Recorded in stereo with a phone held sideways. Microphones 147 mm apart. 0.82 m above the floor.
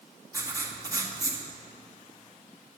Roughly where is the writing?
Right.